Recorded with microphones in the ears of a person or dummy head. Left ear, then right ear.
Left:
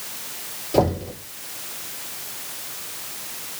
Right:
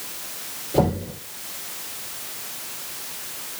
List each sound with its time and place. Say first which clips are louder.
0.7 s knocking: left 2 dB; 75° left (ahead or behind), 3.5 m